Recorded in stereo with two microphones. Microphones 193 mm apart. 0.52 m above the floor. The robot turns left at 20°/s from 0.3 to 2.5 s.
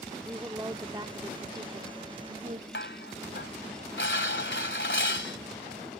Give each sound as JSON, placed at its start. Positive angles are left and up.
{"t": 0.2, "sound": "a woman speaking", "azimuth_deg": -25}
{"t": 2.7, "sound": "dishes clattering", "side_deg": 75}